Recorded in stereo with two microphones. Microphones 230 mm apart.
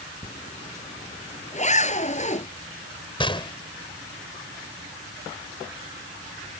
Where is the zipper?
30° left (ahead or behind).